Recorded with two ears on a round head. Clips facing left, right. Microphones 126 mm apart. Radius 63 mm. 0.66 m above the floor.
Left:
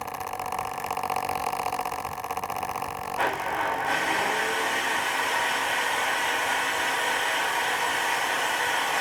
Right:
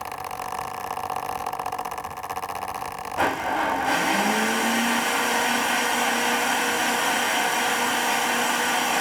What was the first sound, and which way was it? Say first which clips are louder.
A blender: right 4 dB; 45° right (ahead or behind).